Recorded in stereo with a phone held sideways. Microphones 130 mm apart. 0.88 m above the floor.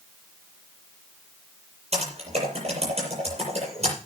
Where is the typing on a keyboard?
50° right (ahead or behind), 7 m.